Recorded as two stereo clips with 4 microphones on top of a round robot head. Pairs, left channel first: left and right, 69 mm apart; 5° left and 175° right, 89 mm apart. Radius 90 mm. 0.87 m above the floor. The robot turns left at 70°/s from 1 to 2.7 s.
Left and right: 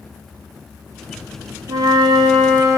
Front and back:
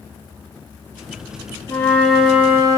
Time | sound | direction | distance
1.7 | a flute | 55° right | 1.0 m